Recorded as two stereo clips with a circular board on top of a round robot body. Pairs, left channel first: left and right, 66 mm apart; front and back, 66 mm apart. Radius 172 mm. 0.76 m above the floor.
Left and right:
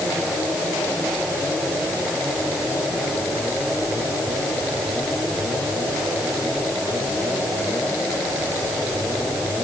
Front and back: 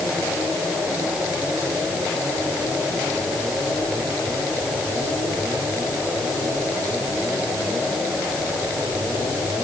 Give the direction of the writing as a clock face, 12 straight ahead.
No writing in this recording.